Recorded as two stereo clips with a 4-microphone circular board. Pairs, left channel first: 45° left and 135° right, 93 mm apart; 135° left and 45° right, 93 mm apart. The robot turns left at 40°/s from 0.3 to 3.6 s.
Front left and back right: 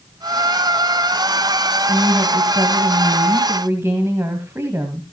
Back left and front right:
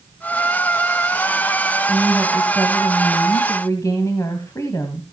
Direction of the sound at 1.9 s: 115° right.